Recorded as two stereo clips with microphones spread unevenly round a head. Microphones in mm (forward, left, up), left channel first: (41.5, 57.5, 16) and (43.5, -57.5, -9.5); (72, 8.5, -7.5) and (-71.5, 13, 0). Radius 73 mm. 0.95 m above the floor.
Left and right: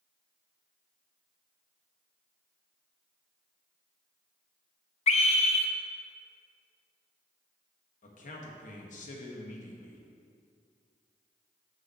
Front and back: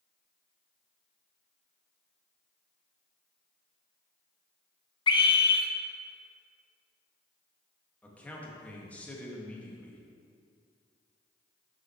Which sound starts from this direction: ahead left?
A scream, at 5.1 s.